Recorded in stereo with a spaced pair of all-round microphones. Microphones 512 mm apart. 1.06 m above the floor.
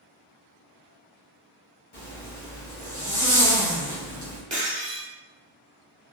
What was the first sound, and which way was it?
A zipper, 50° left (ahead or behind).